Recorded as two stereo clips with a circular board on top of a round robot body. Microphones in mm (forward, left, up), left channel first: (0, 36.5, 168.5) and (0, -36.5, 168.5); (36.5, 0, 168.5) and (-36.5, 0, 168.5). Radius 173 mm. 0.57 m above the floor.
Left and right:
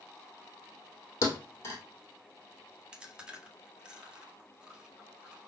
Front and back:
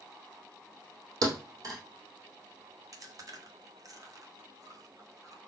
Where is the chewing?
165° right, 1.6 m.